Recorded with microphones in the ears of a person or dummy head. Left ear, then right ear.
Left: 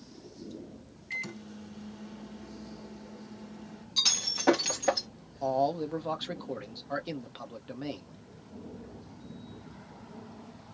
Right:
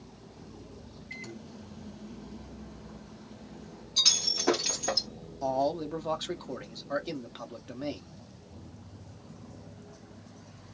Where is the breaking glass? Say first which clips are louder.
Right 3 dB; 20° left (ahead or behind), 1.4 m.